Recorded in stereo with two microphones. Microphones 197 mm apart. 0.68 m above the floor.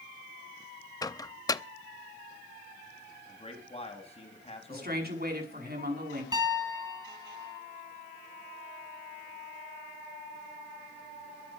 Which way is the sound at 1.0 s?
20° left (ahead or behind).